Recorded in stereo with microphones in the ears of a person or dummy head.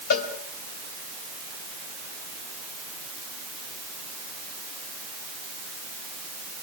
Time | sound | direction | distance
0.1 | a cowbell | 55° left (ahead or behind) | 4 m